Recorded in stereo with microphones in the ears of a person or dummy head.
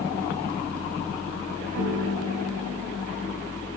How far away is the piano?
About 8.5 m.